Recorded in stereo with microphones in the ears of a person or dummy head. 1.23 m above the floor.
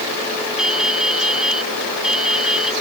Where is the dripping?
5° right (ahead or behind).